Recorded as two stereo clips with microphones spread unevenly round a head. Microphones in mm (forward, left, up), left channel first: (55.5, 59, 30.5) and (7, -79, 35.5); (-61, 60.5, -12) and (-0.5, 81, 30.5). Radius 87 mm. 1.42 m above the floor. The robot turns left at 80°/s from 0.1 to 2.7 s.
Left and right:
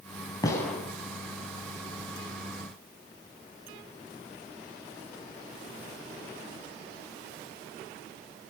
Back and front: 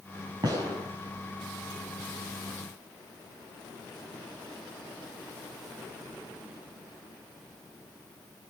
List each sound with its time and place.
0.4 s a gunshot: 5° left, 7 m; by 0.8 s 25° right, 7 m